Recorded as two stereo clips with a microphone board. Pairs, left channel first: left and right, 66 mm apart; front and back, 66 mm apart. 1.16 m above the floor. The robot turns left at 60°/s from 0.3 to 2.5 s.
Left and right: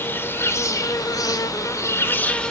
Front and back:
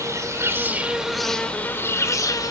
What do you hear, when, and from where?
0.0 s an insect: 145° left, 1.6 m; by 2.5 s 10° left, 1.6 m